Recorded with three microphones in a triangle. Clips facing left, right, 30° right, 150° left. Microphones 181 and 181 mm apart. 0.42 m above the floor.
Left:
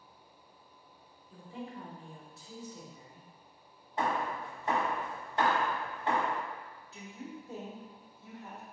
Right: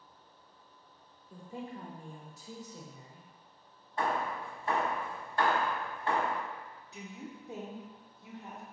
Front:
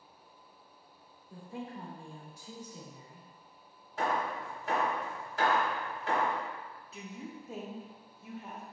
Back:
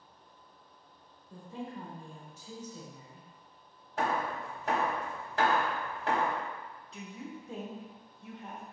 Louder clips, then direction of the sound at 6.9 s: Left 1 dB, back 1 dB; 105° right.